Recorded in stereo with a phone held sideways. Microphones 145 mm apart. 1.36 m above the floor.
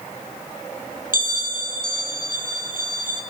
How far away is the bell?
About 1.0 m.